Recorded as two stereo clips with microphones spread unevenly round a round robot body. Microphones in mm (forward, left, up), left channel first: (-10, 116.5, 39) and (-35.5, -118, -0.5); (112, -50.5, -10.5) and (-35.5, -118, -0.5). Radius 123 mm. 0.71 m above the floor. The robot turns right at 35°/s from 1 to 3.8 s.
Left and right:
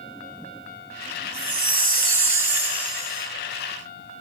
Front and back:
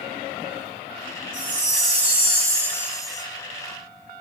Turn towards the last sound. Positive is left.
turn(degrees=-40)